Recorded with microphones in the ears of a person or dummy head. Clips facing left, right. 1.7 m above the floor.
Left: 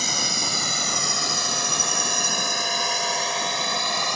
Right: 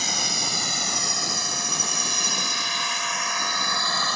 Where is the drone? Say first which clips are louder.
Left 2 dB; 85° left; by 4.2 s 20° left (ahead or behind).